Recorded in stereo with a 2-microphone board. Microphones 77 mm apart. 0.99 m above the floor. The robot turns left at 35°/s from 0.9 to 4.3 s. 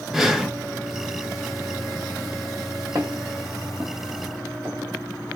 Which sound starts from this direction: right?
Footsteps, at 3.0 s.